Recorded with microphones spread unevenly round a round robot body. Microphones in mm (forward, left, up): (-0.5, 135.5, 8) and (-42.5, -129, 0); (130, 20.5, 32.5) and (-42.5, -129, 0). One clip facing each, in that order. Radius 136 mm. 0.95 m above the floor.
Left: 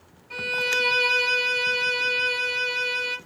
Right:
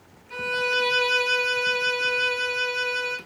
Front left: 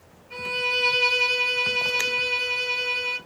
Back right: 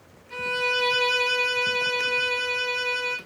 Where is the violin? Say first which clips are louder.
Right 3 dB, back right 2 dB; 165° left, 1.0 m.